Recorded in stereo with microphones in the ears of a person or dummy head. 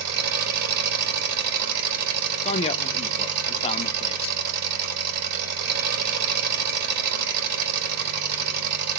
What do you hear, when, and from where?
0.0 s an engine running: 60° right (ahead or behind), 2 m
2.4 s a man speaking: 35° left (ahead or behind), 0.7 m